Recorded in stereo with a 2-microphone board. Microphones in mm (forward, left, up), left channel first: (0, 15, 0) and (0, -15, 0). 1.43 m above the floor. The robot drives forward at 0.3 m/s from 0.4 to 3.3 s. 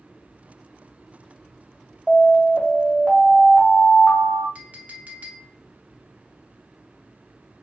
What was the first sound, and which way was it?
An alarm, centre (ahead or behind).